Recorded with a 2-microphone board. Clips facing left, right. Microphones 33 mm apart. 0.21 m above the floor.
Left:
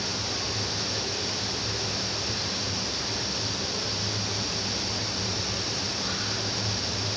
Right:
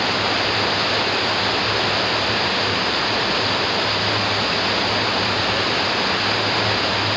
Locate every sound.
0.0 s running water: 55° right (ahead or behind)